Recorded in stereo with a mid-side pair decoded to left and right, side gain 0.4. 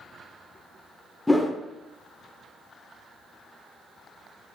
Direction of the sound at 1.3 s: 10° left.